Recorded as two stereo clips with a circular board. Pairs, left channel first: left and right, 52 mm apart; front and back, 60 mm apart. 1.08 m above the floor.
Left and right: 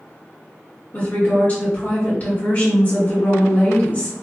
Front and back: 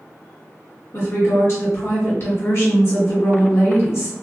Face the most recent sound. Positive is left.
turn(degrees=35)